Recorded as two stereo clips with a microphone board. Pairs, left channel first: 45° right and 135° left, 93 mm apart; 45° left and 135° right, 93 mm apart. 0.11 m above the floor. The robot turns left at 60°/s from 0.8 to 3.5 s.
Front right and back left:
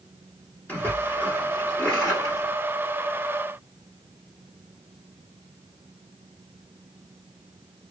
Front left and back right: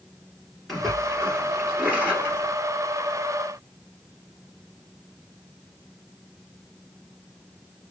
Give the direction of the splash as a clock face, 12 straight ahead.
1 o'clock.